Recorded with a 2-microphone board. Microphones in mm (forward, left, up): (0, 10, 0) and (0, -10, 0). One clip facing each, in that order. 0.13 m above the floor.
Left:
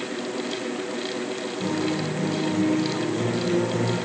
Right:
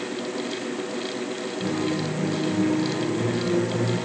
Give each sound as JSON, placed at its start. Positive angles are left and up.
{"t": 1.6, "sound": "a guitar", "side_deg": 30, "distance_m": 4.0}